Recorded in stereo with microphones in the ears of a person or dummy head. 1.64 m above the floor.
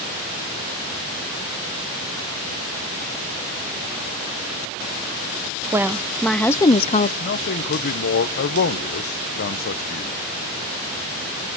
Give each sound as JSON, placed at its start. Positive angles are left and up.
{"t": 5.7, "sound": "a woman speaking", "side_deg": -15, "distance_m": 1.0}
{"t": 7.2, "sound": "a man speaking", "side_deg": 50, "distance_m": 1.1}